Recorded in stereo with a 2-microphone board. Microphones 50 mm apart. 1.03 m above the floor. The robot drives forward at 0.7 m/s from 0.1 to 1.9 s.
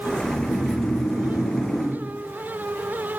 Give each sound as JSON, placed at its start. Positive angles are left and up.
{"t": 0.2, "sound": "snoring", "side_deg": 85, "distance_m": 8.5}